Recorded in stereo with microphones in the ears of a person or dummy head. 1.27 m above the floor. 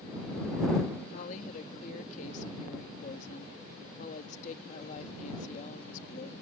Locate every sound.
1.1 s a woman speaking: 45° left (ahead or behind)